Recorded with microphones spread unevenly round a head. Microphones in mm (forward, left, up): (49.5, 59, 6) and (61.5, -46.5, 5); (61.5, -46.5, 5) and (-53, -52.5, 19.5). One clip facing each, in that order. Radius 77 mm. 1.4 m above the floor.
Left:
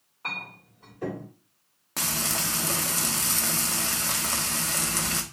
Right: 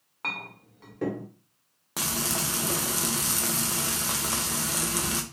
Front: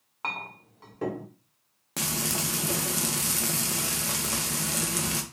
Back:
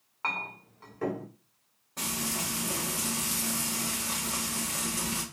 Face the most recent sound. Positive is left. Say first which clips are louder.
# right 1 dB, front 3 dB
turn(degrees=-5)